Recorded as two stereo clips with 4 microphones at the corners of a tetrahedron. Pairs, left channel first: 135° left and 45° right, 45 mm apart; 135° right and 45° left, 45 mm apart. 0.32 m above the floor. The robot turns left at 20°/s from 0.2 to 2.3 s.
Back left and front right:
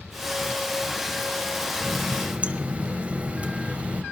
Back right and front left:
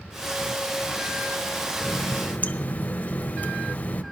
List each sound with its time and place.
1.8 s a running tap: 85° right, 0.7 m; by 4.0 s 95° right, 0.7 m